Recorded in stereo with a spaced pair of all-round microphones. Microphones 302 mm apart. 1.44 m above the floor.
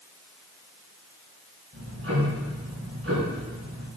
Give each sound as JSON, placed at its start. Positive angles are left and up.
{"t": 1.7, "sound": "ticking", "side_deg": -50, "distance_m": 5.0}